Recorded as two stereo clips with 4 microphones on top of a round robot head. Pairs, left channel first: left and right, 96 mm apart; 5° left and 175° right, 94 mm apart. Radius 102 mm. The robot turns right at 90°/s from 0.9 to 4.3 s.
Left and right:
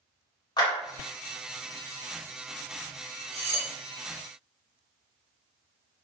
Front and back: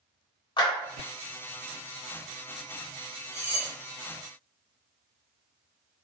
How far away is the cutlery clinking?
About 0.5 m.